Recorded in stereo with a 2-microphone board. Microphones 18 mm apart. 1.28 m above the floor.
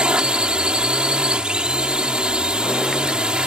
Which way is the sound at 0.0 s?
55° right (ahead or behind).